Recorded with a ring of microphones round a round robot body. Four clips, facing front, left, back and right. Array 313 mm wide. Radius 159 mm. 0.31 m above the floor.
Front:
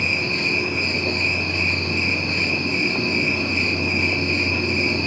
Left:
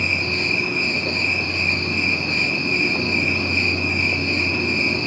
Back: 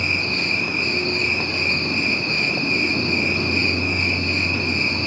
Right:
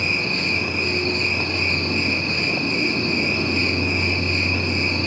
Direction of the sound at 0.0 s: 120° left.